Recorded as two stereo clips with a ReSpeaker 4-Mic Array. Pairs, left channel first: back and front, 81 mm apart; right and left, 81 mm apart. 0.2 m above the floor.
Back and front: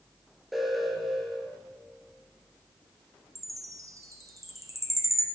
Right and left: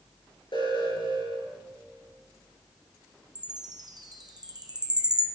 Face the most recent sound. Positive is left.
turn(degrees=50)